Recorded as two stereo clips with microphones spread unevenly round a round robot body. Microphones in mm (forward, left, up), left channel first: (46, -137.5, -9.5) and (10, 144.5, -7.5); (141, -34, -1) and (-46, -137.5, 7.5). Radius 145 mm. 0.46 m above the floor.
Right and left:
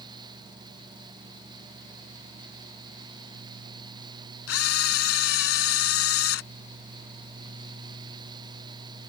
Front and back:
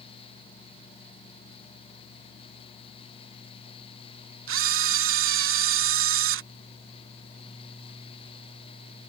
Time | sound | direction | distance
4.5 | a camera shutter | 130° right | ?